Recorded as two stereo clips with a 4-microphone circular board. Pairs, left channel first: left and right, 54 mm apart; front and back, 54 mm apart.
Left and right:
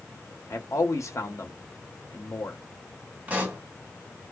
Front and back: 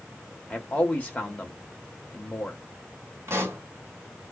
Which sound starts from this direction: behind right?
A pop, at 3.3 s.